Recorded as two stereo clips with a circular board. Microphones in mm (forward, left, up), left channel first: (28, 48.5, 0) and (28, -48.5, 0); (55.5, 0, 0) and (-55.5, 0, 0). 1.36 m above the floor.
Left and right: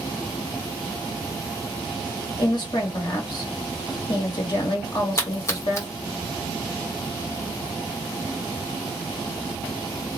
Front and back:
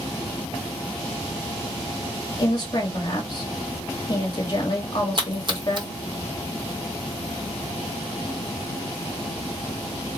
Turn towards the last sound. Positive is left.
turn(degrees=145)